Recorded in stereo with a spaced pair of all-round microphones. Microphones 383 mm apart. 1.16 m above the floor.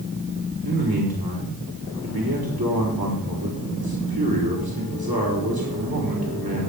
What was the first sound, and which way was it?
A man speaking, 70° right (ahead or behind).